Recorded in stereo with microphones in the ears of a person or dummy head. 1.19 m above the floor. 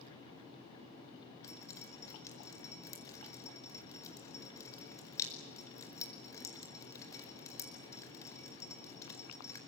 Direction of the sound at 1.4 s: 15° left (ahead or behind).